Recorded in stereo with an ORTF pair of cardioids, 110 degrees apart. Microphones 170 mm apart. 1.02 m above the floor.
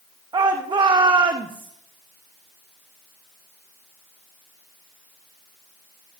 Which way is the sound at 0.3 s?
30° right.